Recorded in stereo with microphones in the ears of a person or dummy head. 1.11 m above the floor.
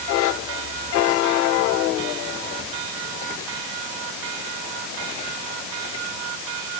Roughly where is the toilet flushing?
No toilet flushing in this recording.